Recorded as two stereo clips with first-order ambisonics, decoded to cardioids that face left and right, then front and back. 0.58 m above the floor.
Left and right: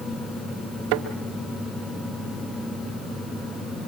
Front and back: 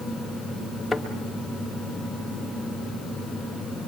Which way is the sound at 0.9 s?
85° right.